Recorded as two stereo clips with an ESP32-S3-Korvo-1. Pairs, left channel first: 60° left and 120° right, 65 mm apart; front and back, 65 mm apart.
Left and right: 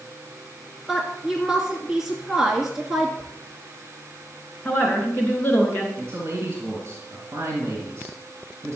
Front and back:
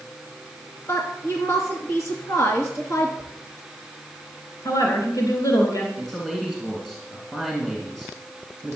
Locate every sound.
0.9 s a woman speaking: 40° right, 2.5 m
3.2 s a whoosh: 15° right, 5 m
4.7 s a woman speaking: straight ahead, 3 m
6.0 s a man speaking: 85° right, 2.5 m